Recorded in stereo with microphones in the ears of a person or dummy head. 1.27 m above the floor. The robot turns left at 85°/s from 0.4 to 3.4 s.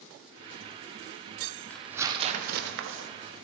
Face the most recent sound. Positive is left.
turn(degrees=-135)